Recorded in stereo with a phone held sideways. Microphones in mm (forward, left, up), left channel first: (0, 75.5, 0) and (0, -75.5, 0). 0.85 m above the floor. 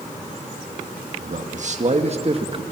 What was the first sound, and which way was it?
A man speaking, 55° right (ahead or behind).